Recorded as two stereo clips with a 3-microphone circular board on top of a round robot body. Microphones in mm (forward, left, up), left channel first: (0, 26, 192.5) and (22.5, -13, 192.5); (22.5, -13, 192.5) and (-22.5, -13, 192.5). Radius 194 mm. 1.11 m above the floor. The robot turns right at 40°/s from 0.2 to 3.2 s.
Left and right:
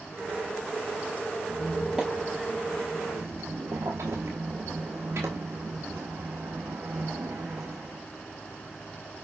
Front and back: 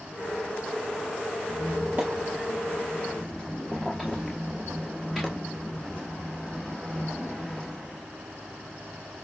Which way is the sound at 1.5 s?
165° right.